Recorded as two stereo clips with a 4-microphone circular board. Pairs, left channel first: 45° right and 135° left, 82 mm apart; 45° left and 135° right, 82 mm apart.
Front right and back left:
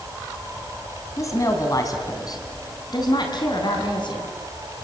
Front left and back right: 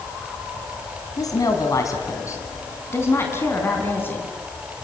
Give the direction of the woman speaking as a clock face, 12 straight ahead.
12 o'clock.